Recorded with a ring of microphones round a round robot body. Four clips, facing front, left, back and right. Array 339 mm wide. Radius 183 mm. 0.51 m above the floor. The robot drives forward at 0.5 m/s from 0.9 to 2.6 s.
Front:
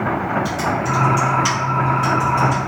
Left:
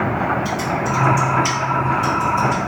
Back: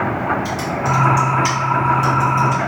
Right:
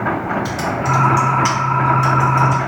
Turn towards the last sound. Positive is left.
turn(degrees=-125)